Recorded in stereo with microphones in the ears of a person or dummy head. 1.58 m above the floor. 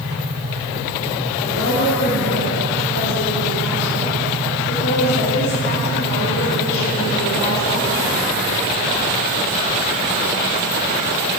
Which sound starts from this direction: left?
A woman speaking, at 1.4 s.